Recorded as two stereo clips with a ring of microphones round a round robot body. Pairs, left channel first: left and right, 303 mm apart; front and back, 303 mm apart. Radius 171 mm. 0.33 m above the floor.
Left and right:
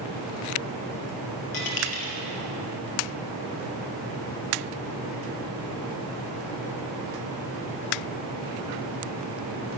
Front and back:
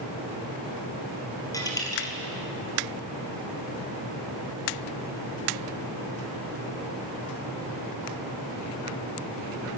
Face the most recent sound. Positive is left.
turn(degrees=80)